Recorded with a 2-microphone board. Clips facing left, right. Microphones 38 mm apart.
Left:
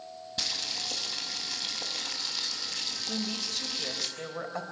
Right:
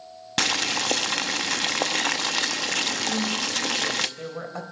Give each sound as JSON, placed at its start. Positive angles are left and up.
{"t": 0.4, "sound": "boiling", "side_deg": -80, "distance_m": 0.8}
{"t": 3.1, "sound": "a woman speaking", "side_deg": 0, "distance_m": 4.0}